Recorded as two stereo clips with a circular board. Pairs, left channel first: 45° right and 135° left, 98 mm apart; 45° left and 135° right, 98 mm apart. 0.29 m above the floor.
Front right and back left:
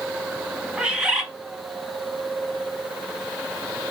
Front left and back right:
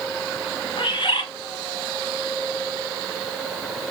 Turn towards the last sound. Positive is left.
turn(degrees=55)